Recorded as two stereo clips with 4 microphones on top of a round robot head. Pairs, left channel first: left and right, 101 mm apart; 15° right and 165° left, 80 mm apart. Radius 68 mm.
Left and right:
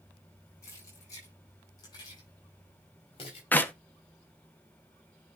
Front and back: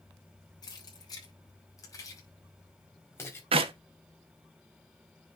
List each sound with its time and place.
0.6 s keys jangling: 25° left, 6.5 m; by 3.4 s 45° left, 5 m
3.5 s a clap: 165° left, 1.3 m